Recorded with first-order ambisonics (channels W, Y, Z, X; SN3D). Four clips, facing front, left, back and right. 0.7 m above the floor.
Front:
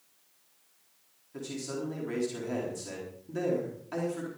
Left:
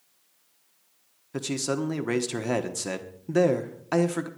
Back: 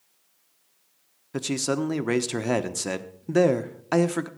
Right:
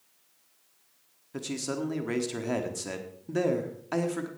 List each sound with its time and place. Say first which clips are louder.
1.3 s a man speaking: left 5 dB, back 10 dB; 160° left, 1.2 m